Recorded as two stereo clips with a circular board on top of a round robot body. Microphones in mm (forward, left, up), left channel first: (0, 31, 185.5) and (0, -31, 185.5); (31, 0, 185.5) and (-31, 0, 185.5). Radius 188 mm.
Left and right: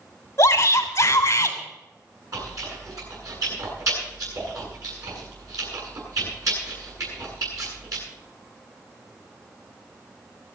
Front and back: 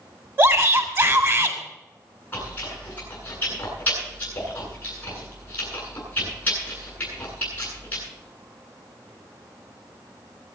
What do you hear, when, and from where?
0.4 s a shout: 135° left, 3 m
2.3 s chewing: 65° right, 9.5 m